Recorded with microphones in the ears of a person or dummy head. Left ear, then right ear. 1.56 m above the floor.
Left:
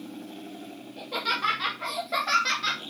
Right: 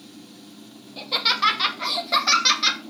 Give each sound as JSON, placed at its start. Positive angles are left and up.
{"t": 1.0, "sound": "laughter", "side_deg": -40, "distance_m": 2.5}